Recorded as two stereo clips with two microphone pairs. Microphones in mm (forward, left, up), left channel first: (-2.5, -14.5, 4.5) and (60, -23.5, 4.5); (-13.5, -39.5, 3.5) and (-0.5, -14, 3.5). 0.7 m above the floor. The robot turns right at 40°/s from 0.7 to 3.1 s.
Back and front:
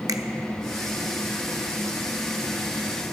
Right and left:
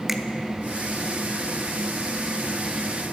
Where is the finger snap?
15° right, 0.8 m.